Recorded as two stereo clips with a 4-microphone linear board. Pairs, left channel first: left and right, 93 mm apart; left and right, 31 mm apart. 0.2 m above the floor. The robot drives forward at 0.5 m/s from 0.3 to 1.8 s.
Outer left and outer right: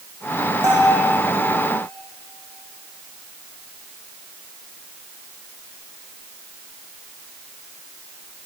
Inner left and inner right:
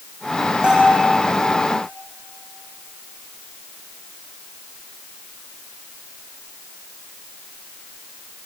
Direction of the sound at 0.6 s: 35° right (ahead or behind).